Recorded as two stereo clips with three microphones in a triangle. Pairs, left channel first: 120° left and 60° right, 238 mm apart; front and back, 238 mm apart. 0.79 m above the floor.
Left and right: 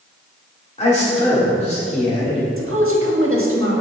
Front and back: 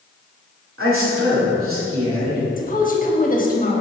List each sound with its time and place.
0.8 s a man speaking: straight behind, 2 m
2.6 s a woman speaking: 50° right, 1.2 m